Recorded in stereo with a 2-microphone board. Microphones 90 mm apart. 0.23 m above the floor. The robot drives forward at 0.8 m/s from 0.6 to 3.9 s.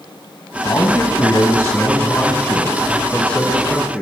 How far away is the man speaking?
About 1.3 m.